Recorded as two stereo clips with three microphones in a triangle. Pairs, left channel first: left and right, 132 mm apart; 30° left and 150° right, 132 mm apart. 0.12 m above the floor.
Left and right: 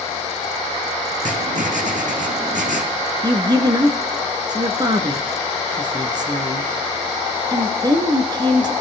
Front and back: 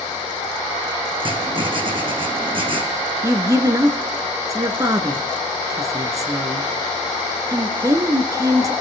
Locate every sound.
1.2 s writing: 100° right, 1.9 m
3.2 s a woman speaking: 105° right, 1.3 m